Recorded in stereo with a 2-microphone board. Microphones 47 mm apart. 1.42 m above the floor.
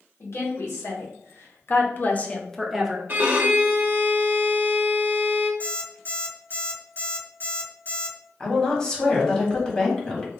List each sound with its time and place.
0.2 s a woman speaking: 80° left, 1.3 m; by 3.0 s 10° right (ahead or behind), 0.5 m
3.1 s a violin: 40° right (ahead or behind), 0.6 m
5.6 s an alarm clock: 45° left (ahead or behind), 1.3 m
8.4 s a woman speaking: 15° left (ahead or behind), 1.1 m